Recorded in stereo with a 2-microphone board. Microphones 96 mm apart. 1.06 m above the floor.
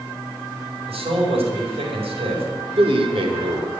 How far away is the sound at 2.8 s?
About 3 m.